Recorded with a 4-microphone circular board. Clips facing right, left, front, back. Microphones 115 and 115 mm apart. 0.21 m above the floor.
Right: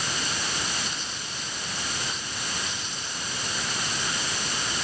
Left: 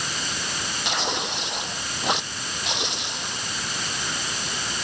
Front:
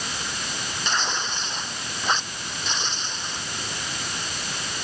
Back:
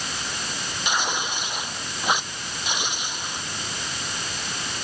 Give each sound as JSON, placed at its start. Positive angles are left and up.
{"t": 0.8, "sound": "tearing paper", "azimuth_deg": 100}